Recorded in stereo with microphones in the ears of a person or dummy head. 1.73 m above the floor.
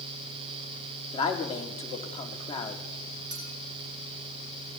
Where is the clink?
10° right (ahead or behind), 1.7 m.